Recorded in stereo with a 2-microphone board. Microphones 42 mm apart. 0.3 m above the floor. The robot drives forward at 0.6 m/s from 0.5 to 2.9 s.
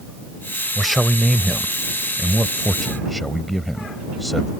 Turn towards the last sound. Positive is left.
turn(degrees=0)  # may be behind; listen again after turning